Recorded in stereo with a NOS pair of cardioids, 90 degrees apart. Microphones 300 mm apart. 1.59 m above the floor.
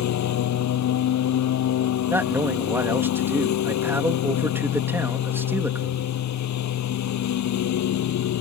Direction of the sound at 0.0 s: 65° left.